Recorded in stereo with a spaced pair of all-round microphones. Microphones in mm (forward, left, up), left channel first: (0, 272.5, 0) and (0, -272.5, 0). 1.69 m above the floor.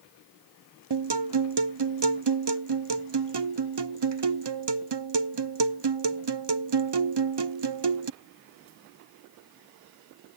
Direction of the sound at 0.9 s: 50° right (ahead or behind).